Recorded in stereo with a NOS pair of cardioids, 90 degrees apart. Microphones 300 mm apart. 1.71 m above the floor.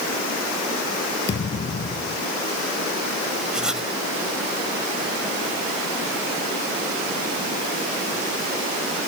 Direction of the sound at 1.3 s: 40° left.